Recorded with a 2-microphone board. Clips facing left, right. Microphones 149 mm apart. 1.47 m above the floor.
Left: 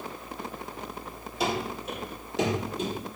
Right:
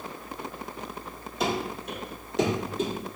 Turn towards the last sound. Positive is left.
turn(degrees=0)  # may be behind; listen again after turning